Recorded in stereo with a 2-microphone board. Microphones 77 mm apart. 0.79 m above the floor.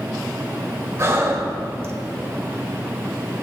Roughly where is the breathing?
Right.